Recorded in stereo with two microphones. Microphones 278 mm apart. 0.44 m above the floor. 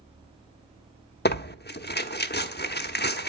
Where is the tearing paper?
35° left (ahead or behind), 0.9 m.